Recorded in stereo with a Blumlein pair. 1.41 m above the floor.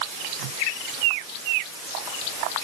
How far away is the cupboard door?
I don't hear a cupboard door.